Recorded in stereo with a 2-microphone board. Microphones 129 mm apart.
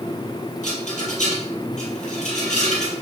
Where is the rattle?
70° left (ahead or behind), 4.5 m.